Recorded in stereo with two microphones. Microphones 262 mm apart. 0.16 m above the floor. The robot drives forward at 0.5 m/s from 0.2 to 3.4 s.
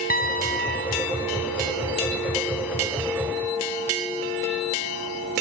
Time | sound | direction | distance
0.1 | a piano | 35° left (ahead or behind) | 3.5 m